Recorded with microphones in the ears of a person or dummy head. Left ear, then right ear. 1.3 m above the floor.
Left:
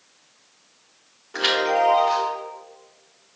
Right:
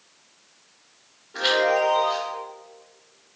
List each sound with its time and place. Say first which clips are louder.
1.3 s a chime: even; 30° left (ahead or behind), 1.2 m